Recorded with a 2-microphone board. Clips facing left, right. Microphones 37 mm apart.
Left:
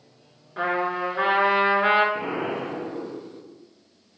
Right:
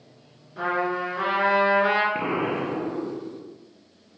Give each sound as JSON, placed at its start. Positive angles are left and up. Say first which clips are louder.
{"t": 0.6, "sound": "a trumpet", "louder": "left 1 dB", "side_deg": 35, "distance_m": 3.0}
{"t": 2.1, "sound": "an explosion", "louder": "right 2 dB", "side_deg": -40, "distance_m": 1.6}